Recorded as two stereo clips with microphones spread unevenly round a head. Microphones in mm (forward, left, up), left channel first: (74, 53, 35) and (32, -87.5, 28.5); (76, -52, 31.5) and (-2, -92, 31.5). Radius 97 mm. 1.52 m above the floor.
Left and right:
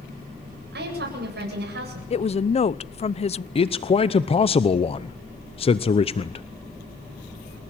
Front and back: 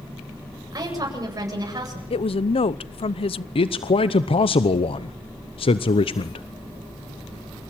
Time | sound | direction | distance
0.7 | a woman speaking | 105° right | 8 m
2.1 | a woman speaking | 25° left | 0.7 m
3.5 | a man speaking | 20° left | 0.9 m